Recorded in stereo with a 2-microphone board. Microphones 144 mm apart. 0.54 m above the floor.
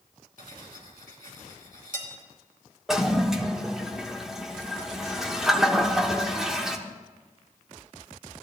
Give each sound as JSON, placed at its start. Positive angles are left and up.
{"t": 0.4, "sound": "cutlery clinking", "side_deg": -80, "distance_m": 3.5}
{"t": 2.9, "sound": "a toilet flushing", "side_deg": -5, "distance_m": 1.0}